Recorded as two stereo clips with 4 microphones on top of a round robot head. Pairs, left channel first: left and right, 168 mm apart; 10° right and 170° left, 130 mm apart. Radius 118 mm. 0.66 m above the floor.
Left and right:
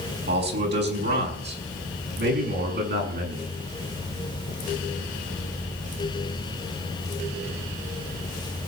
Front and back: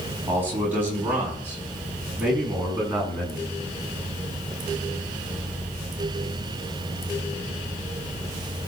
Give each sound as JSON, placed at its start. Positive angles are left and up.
{"t": 0.3, "sound": "a man speaking", "azimuth_deg": -105, "distance_m": 5.5}